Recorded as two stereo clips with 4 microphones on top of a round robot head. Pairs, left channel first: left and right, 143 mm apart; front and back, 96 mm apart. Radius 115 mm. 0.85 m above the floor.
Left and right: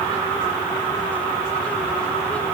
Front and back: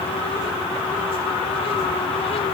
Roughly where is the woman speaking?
No woman speaking in this recording.